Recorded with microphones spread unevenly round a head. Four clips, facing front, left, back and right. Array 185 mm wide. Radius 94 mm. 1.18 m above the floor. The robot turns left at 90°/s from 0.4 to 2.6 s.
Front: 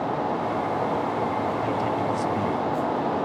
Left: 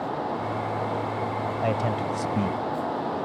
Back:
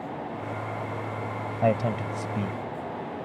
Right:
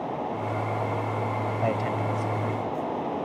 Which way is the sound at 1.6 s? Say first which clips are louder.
Left 2 dB, front 1 dB; straight behind.